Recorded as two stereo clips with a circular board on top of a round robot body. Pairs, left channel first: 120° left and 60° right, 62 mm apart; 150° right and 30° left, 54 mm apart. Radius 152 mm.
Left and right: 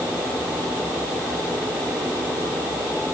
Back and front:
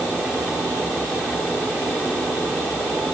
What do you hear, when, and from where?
Only background noise.